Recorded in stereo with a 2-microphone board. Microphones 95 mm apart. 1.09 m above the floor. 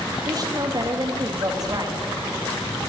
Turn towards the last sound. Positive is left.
turn(degrees=-40)  # may be behind; listen again after turning